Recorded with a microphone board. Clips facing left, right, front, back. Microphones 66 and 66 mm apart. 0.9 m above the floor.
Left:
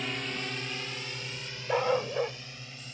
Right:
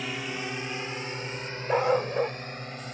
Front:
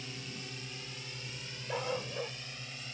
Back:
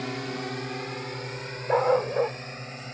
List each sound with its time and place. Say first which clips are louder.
0.0 s a drone: right 2 dB, back 14 dB; 175° right; by 2.9 s 130° right
1.7 s a dog barking: right 3 dB, back 14 dB; 165° right